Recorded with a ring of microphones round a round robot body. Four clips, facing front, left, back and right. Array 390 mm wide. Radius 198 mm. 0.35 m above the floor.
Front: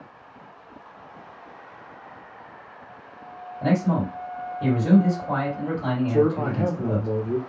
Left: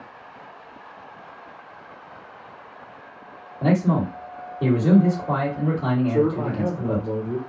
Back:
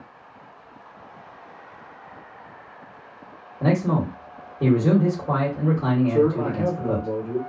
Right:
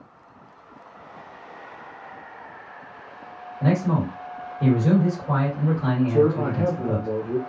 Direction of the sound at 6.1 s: 30° right.